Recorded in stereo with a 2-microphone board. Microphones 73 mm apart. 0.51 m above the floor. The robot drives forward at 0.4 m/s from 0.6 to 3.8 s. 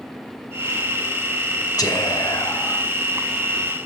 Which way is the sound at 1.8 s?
60° left (ahead or behind).